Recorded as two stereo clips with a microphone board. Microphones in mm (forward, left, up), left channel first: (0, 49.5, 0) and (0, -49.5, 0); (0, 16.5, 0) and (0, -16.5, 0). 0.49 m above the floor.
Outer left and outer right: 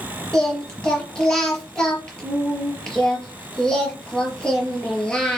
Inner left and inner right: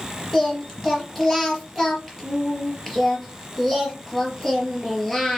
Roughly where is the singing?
Centre.